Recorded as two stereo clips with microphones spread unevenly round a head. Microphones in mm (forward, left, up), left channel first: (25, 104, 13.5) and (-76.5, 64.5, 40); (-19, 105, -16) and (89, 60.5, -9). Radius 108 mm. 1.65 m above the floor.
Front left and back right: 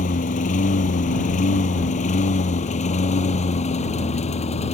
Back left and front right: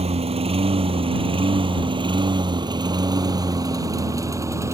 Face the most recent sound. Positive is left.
turn(degrees=40)